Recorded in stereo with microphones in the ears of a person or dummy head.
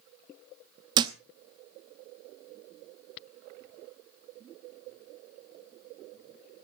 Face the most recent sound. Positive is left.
turn(degrees=-30)  # may be behind; listen again after turning